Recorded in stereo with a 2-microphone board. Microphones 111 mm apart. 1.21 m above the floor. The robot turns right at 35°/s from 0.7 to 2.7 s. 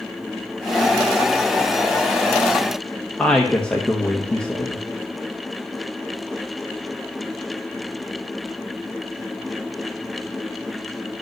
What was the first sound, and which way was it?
A woman speaking, 10° left (ahead or behind).